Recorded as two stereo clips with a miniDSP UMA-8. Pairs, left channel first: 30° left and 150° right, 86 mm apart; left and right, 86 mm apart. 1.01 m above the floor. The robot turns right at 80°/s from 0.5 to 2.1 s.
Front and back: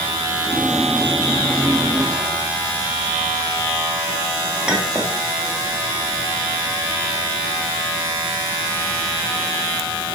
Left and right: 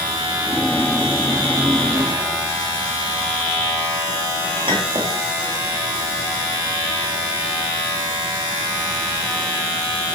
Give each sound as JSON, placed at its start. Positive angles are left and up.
{"t": 4.7, "sound": "a clink", "azimuth_deg": -70, "distance_m": 1.3}